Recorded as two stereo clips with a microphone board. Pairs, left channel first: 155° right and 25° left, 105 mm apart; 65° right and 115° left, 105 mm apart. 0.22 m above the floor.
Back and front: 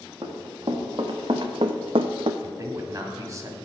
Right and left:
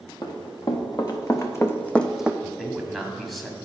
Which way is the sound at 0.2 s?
25° right.